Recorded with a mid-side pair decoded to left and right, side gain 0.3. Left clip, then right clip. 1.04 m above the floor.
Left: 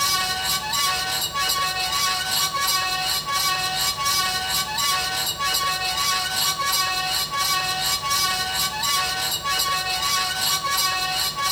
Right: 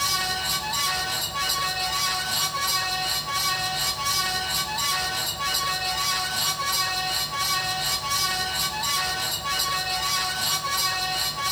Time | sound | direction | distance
0.0 | a fan | 50° left | 3.5 m